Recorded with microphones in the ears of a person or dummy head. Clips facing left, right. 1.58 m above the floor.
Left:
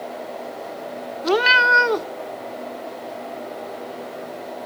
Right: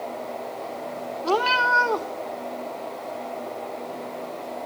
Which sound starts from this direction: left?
A cat meowing, at 1.2 s.